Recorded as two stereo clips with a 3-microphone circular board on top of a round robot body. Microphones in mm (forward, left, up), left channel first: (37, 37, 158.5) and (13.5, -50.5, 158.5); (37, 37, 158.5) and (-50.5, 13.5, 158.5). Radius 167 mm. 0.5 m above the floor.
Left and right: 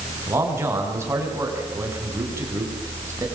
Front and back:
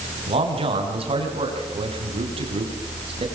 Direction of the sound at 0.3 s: 170° right.